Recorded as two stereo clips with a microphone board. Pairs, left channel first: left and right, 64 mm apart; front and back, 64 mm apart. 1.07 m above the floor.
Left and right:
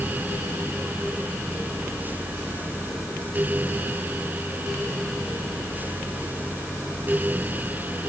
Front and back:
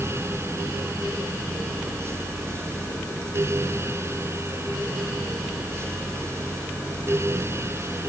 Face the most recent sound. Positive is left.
No sound to turn to.